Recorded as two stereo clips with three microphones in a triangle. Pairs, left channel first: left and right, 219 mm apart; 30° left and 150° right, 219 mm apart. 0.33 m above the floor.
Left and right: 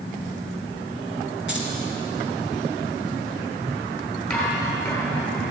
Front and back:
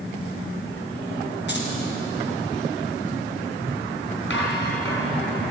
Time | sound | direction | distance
1.5 | keys jangling | 60° left | 2.5 m
4.3 | dishes clattering | 10° left | 4 m